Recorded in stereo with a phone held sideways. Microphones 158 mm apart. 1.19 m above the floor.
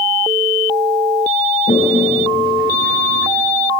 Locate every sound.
1.7 s a toilet flushing: 85° left, 8 m